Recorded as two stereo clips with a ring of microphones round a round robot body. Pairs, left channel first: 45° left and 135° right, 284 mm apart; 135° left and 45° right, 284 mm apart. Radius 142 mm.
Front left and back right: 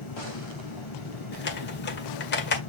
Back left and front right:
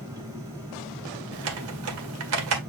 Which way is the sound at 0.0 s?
35° left.